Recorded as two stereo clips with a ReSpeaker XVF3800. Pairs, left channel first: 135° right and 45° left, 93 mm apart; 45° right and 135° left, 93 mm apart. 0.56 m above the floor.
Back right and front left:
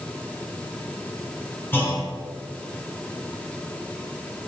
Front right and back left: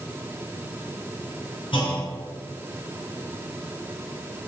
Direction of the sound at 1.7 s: 65° right.